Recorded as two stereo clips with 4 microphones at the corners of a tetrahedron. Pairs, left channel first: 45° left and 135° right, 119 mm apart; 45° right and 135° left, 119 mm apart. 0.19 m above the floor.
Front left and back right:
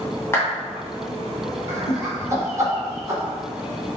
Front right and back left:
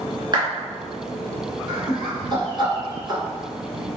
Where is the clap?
105° left, 1.9 m.